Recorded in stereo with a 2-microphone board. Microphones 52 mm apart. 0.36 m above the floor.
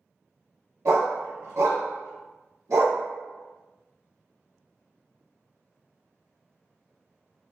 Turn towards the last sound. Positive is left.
turn(degrees=-80)